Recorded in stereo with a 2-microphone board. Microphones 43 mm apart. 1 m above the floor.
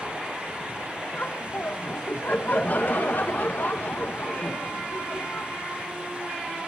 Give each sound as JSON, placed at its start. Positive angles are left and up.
{"t": 1.1, "sound": "laughter", "side_deg": 45, "distance_m": 1.2}